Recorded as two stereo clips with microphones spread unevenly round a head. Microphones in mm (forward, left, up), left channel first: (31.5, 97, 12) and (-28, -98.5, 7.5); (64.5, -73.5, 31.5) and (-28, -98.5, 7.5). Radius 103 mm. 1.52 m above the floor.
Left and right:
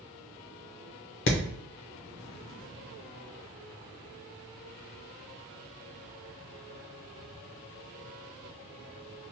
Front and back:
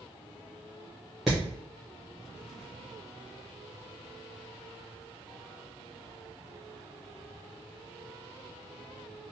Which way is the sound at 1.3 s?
100° left.